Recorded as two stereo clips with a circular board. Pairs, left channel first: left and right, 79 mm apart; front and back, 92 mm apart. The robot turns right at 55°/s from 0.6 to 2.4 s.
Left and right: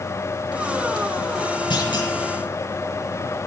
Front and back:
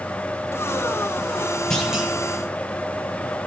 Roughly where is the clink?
I don't hear a clink.